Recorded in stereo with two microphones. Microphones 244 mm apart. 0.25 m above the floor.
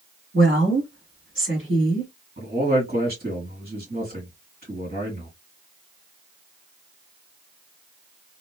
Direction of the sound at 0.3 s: 55° right (ahead or behind).